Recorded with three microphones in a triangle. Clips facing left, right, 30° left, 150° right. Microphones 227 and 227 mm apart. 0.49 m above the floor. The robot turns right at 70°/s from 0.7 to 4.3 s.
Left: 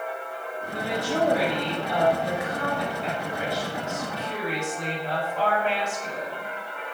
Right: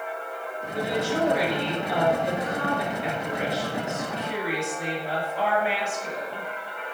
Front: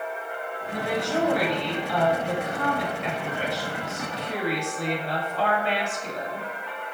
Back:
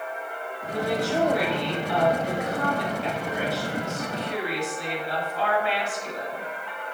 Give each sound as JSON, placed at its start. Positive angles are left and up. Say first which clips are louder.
{"t": 0.7, "sound": "a woman speaking", "louder": "right 2 dB, back 2 dB", "azimuth_deg": 100, "distance_m": 4.0}